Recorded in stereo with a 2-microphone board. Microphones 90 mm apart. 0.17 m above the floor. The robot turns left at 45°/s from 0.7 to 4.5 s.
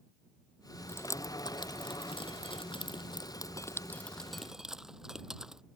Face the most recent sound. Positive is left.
turn(degrees=-5)  # may be behind; listen again after turning